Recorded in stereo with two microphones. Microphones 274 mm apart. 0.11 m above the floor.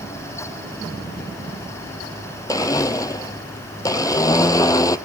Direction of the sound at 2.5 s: 15° left (ahead or behind).